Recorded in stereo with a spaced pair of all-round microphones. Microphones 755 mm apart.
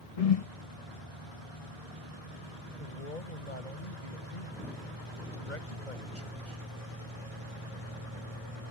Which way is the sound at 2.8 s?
75° left (ahead or behind).